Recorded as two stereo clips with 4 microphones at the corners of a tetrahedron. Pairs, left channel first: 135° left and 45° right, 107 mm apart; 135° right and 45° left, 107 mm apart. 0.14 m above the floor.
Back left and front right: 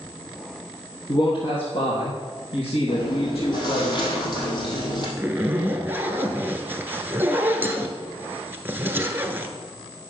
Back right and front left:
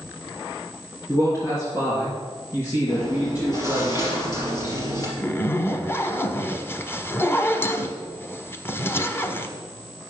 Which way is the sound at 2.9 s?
Straight behind.